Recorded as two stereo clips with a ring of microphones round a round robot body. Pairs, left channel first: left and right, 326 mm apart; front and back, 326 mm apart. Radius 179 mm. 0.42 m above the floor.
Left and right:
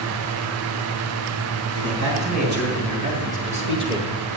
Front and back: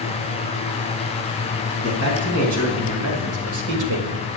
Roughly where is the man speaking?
Behind right.